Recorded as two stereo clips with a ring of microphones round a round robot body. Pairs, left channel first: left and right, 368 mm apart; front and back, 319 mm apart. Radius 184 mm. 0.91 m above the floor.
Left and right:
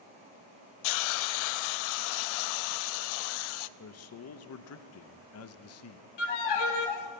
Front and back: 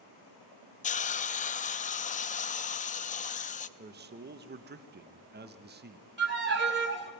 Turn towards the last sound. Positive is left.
turn(degrees=120)